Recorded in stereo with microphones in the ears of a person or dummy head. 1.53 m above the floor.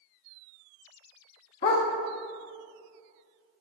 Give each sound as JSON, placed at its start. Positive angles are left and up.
{"t": 1.6, "sound": "a dog barking", "side_deg": 20, "distance_m": 1.0}